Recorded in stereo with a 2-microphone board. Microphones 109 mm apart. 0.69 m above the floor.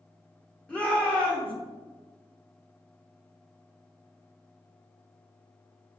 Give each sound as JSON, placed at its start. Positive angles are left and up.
{"t": 0.7, "sound": "a shout", "side_deg": 10, "distance_m": 1.6}